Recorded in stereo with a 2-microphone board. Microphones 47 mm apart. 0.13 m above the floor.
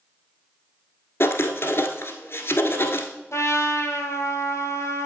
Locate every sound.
1.2 s writing: 50° left (ahead or behind), 1.1 m
3.3 s a trumpet: 60° left (ahead or behind), 1.5 m